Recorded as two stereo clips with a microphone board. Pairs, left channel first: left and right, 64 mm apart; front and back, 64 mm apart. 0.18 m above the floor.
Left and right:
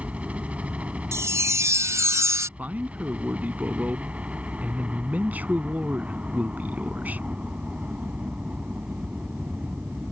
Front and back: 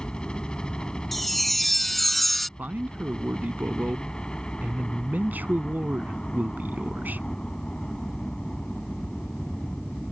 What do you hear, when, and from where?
0.0 s a helicopter: 55° right
1.1 s a chime: 85° right
2.6 s a man speaking: 135° right